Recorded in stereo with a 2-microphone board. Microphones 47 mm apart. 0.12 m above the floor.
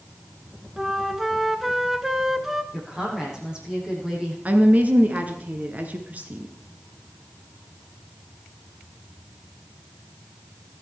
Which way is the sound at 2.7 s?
15° right (ahead or behind).